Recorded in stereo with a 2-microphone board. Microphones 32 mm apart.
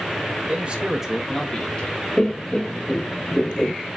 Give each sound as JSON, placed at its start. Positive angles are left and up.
{"t": 0.5, "sound": "a man speaking", "side_deg": -45, "distance_m": 1.3}
{"t": 2.2, "sound": "laughter", "side_deg": 25, "distance_m": 0.5}